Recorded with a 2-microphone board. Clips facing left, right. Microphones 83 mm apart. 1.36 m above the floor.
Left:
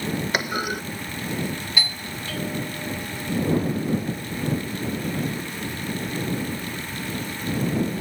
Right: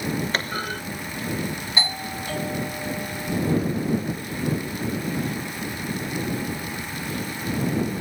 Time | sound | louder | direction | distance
0.3 | a clunk | left 2 dB | 10° left (ahead or behind) | ?
1.8 | a doorbell | right 2 dB | 30° right (ahead or behind) | ?